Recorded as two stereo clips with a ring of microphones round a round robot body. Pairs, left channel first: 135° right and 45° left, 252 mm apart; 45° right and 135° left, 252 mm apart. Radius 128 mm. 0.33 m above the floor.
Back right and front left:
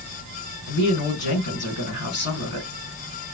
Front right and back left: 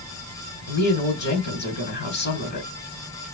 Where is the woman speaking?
90° right, 3 m.